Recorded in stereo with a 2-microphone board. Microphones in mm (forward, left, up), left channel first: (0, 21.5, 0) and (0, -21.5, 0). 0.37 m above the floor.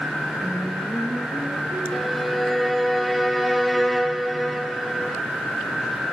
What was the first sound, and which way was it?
Singing, 60° right (ahead or behind).